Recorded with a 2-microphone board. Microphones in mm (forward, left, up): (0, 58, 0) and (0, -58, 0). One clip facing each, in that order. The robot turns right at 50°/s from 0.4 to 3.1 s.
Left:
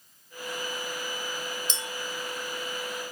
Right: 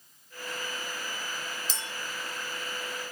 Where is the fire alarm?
I don't hear a fire alarm.